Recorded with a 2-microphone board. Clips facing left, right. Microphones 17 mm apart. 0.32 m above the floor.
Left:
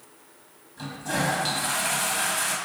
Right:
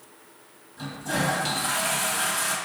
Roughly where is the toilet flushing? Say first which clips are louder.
Even; centre.